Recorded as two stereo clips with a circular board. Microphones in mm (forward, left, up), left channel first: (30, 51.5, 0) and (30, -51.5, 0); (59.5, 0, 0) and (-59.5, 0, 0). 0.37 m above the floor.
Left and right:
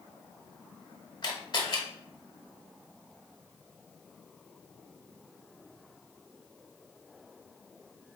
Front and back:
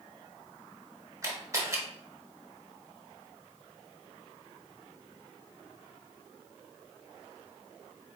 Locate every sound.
1.2 s a camera shutter: 125° left, 1.0 m